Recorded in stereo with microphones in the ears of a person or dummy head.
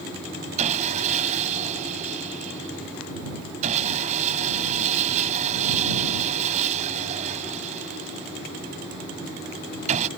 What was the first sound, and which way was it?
Sawing, 35° right (ahead or behind).